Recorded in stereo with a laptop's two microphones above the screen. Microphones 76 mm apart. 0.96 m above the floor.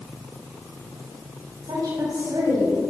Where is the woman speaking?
75° right (ahead or behind), 4.5 m; by 2.8 s 80° right, 5.5 m.